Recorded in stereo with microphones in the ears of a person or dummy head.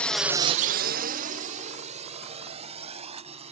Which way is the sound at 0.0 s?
5° left (ahead or behind).